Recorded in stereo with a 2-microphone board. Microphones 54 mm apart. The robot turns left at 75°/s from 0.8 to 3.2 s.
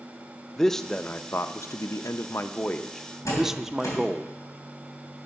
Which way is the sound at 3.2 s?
75° left (ahead or behind).